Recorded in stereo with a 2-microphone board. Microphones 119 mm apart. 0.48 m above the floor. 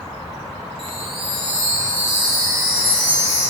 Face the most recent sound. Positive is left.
turn(degrees=-50)  # may be behind; listen again after turning